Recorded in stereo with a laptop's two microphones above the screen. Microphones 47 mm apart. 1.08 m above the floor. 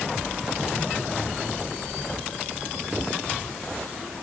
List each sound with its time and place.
Only background noise.